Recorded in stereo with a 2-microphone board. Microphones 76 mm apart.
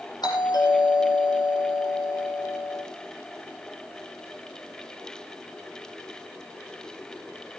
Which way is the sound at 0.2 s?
60° left (ahead or behind).